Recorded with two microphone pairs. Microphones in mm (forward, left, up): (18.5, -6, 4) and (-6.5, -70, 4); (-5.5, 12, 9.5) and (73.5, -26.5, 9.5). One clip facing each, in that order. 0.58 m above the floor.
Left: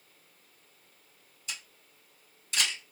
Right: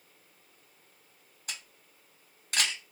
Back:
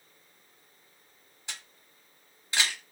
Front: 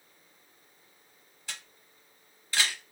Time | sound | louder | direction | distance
1.5 | a camera shutter | even, even | 135° right | 1.5 m